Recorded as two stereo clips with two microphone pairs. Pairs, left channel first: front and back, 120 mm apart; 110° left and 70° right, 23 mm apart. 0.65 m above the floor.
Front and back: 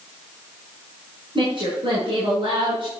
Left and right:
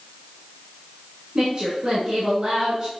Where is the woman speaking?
140° right, 6.5 m.